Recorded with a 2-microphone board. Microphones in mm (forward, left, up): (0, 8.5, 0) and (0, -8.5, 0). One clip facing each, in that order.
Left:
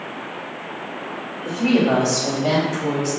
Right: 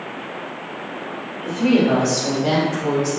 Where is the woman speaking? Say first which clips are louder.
Right 1 dB; centre (ahead or behind), 2.5 m; by 3.2 s 30° right (ahead or behind), 2.5 m.